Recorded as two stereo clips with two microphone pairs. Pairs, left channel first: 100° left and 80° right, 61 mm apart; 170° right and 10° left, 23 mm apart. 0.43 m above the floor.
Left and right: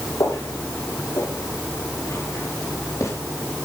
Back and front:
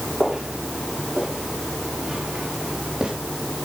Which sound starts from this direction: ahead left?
Footsteps, at 0.2 s.